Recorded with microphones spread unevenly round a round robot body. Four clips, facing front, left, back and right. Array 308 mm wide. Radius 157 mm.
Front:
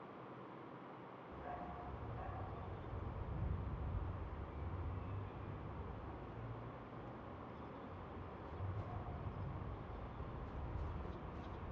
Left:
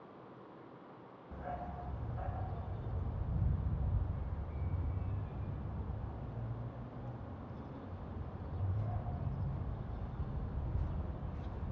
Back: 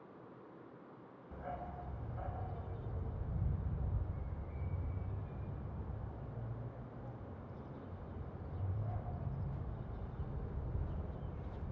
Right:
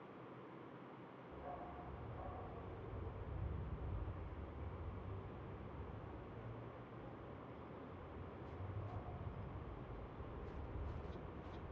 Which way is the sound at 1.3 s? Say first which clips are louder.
Left 7 dB, back 4 dB; 115° left.